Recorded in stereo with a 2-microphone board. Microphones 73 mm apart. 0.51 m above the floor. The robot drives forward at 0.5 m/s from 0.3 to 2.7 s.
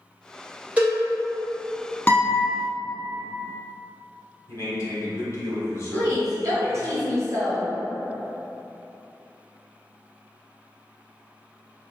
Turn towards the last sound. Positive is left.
turn(degrees=-45)  # may be behind; listen again after turning